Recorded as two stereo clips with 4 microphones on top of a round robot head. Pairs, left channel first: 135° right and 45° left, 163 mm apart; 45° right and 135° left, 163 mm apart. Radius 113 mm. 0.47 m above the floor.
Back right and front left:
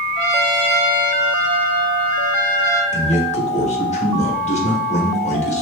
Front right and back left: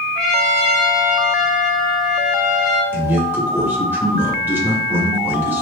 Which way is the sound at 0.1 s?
130° right.